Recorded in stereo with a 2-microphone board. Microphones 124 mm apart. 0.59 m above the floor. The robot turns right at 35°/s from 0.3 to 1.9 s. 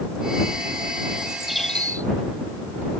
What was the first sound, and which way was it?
A bird, 10° right (ahead or behind).